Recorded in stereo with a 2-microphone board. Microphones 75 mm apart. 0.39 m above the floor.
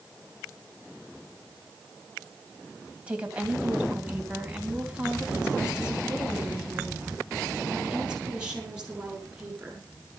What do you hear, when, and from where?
3.1 s a woman speaking: 15° right (ahead or behind), 3 m; by 9.9 s 10° right (ahead or behind), 7 m